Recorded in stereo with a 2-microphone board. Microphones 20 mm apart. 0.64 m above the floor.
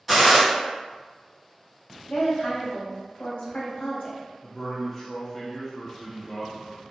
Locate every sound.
0.1 s a gunshot: 15° right (ahead or behind), 1.6 m
2.1 s a woman speaking: 55° left (ahead or behind), 1.0 m
4.4 s a man speaking: 5° left (ahead or behind), 0.5 m